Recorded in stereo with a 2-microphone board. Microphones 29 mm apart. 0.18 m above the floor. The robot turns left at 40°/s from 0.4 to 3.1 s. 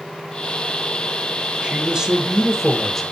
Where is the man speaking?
135° right, 2.5 m; by 3.0 s 165° left, 2.5 m.